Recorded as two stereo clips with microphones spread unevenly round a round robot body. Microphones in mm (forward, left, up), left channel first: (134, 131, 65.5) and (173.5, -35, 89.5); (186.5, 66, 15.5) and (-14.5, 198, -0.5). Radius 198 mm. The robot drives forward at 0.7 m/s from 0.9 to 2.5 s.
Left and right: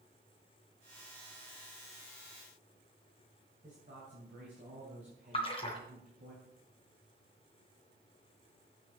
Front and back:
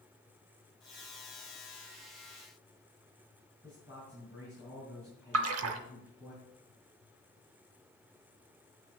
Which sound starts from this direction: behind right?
A man speaking, at 3.6 s.